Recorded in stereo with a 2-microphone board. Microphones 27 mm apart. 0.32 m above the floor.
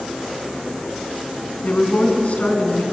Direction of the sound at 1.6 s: 60° left (ahead or behind).